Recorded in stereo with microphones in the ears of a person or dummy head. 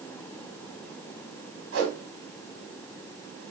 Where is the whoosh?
80° right, 0.9 m.